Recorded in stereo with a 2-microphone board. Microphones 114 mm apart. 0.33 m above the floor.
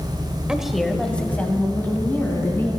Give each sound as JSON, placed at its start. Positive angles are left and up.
{"t": 0.5, "sound": "a woman speaking", "side_deg": -5, "distance_m": 0.9}